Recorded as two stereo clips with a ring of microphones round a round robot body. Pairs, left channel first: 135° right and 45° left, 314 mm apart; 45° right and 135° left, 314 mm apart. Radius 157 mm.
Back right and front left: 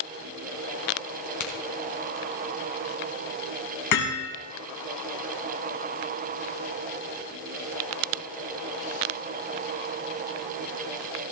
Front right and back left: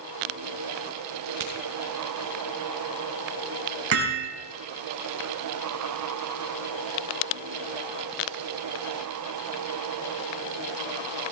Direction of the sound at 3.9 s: 175° right.